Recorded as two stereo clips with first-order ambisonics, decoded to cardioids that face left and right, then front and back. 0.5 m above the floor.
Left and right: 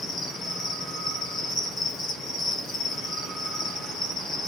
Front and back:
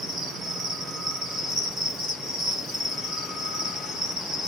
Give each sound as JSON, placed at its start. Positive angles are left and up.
{"t": 0.0, "sound": "an insect", "azimuth_deg": 125, "distance_m": 1.9}